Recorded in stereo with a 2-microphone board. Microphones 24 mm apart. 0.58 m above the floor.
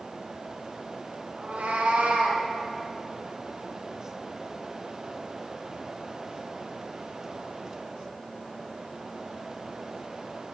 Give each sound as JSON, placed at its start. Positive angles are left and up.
{"t": 1.4, "sound": "a cat meowing", "side_deg": -70, "distance_m": 1.1}